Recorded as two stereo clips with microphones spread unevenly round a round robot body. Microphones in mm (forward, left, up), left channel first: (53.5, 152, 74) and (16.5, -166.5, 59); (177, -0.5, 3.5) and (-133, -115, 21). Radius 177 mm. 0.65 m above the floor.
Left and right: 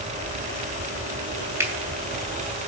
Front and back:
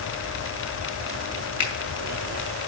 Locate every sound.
1.6 s a finger snap: 15° right, 3 m